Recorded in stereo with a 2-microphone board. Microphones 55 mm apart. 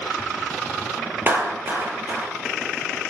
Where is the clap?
35° right (ahead or behind), 3.5 m.